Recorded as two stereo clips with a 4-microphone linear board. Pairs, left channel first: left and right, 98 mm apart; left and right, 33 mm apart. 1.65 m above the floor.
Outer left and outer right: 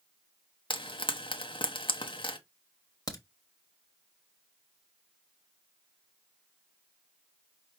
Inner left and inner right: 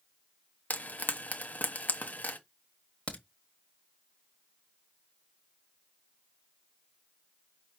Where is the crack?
40° left (ahead or behind), 1.4 m.